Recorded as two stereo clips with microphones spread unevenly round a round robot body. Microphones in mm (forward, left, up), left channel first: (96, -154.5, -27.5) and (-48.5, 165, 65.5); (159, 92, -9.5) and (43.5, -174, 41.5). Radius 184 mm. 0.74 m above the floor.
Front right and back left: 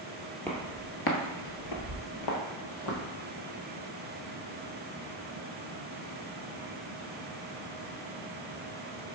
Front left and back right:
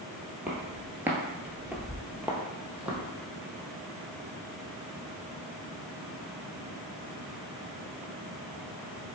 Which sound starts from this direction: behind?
Footsteps, at 0.5 s.